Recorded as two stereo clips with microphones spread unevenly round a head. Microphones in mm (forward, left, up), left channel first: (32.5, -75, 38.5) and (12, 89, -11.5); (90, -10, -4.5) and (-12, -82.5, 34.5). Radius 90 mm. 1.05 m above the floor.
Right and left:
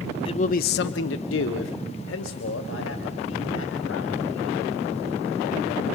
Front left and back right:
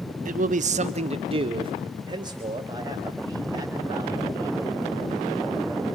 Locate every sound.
0.2 s a man speaking: 150° right, 0.7 m; by 4.8 s 80° right, 4 m